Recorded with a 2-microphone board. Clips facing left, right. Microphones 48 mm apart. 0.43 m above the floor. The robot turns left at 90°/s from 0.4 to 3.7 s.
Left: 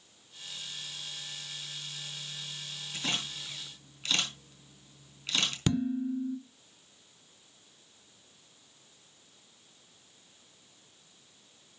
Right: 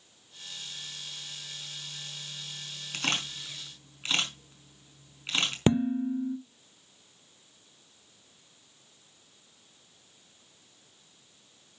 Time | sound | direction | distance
2.9 | a camera shutter | 75° right (ahead or behind) | 4.5 m
5.7 | dishes clattering | 30° right (ahead or behind) | 0.6 m